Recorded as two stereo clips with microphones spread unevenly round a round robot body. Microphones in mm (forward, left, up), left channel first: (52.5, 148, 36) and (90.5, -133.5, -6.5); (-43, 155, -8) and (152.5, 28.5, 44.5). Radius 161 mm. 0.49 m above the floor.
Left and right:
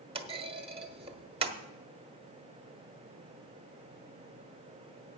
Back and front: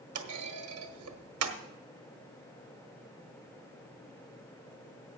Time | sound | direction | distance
0.1 | a clunk | 15° right | 1.3 m